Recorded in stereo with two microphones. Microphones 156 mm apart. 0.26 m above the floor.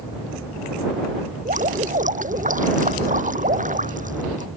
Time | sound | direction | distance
1.4 | dripping | 55° right (ahead or behind) | ?